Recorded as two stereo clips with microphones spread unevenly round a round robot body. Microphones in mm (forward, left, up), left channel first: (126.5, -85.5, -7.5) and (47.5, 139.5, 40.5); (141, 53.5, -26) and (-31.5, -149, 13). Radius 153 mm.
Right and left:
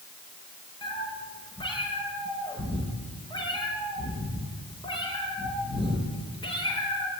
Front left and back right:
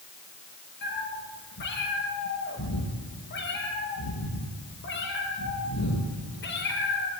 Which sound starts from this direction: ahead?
A cat meowing, at 0.8 s.